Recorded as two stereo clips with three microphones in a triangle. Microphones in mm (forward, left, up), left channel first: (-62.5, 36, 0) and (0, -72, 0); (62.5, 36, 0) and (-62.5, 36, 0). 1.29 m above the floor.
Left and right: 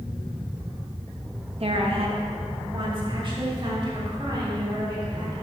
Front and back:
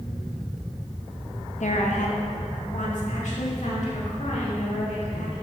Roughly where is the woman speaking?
Ahead.